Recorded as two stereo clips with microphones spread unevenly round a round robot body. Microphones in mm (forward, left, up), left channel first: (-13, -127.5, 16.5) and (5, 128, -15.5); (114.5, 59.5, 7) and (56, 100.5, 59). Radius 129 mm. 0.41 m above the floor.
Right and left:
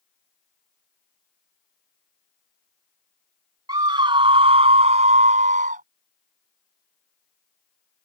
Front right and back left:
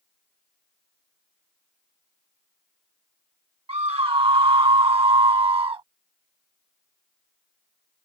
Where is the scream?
160° left; by 5.8 s 145° left.